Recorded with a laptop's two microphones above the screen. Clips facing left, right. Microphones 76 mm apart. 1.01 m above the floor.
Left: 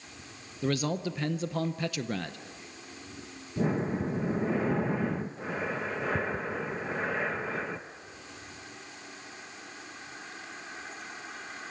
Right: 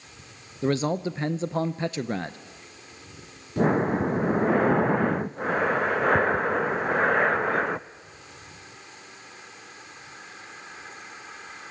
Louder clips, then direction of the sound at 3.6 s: Right 7 dB; 65° right (ahead or behind).